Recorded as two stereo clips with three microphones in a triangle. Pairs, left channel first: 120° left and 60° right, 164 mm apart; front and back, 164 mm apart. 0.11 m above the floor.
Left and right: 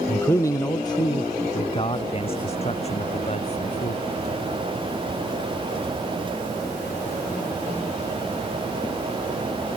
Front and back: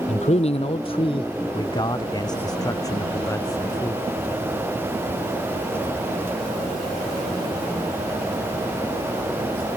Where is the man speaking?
40° left; by 4.0 s 75° left.